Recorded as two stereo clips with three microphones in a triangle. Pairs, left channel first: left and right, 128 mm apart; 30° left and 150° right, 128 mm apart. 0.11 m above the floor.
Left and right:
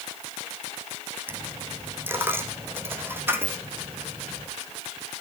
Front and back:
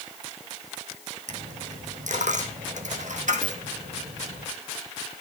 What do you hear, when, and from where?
1.3 s a dropped coin: 165° right, 2.5 m